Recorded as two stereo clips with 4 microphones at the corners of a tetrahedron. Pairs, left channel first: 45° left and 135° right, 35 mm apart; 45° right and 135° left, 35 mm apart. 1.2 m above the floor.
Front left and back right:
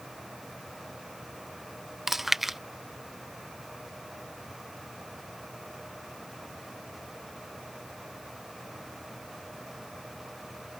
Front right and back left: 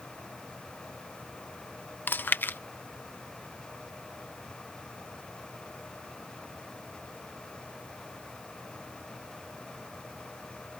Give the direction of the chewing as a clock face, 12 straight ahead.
2 o'clock.